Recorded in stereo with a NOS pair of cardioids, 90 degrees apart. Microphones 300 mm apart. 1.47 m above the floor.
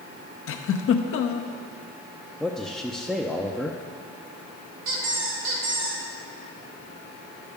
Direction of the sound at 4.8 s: 70° right.